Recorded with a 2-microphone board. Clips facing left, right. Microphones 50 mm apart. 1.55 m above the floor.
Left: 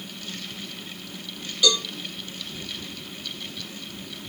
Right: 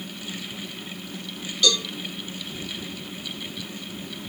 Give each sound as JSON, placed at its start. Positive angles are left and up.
{"t": 1.6, "sound": "a cowbell", "side_deg": 15, "distance_m": 1.9}